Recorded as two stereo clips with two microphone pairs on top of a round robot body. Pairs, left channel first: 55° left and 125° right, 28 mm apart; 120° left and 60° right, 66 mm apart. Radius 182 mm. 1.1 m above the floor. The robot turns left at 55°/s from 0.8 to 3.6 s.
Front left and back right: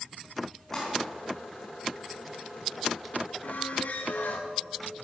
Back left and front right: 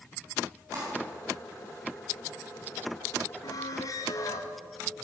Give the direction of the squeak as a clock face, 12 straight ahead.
9 o'clock.